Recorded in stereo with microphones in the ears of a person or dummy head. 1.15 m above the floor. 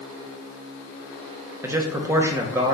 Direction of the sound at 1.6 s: 10° right (ahead or behind).